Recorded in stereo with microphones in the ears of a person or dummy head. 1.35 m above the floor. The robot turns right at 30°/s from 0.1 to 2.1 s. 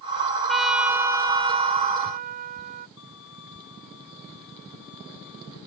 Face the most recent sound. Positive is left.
turn(degrees=75)  # may be behind; listen again after turning